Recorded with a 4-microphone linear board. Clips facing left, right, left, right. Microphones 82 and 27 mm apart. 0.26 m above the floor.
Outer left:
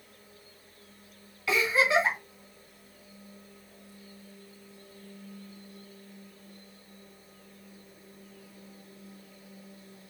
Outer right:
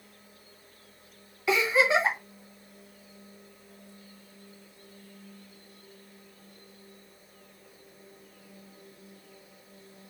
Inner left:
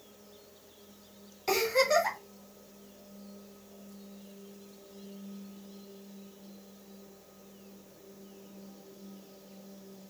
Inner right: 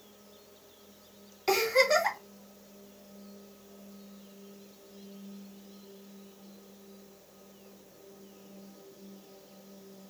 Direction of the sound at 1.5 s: 20° right (ahead or behind).